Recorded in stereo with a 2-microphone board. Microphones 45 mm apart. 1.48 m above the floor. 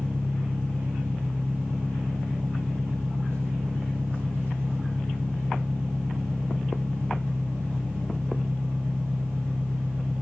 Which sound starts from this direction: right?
An engine running, at 0.0 s.